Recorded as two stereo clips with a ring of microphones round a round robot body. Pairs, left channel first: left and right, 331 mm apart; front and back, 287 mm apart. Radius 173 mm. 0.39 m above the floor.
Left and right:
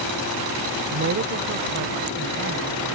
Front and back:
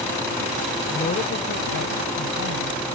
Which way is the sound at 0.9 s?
60° right.